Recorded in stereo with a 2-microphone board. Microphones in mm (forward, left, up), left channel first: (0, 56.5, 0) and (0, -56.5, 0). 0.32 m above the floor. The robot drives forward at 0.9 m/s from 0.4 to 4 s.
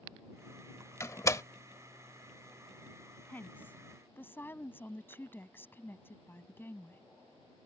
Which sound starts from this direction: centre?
A woman speaking, at 3.3 s.